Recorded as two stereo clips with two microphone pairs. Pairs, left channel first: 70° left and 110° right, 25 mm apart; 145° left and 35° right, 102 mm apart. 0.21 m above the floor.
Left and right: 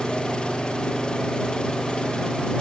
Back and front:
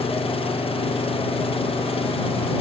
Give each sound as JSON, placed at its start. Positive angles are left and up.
{"t": 0.0, "sound": "an engine running", "azimuth_deg": 125}